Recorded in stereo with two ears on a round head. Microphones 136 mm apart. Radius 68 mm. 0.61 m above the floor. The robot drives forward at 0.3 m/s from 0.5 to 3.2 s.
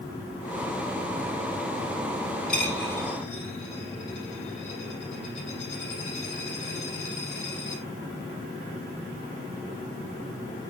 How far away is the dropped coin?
About 4.5 m.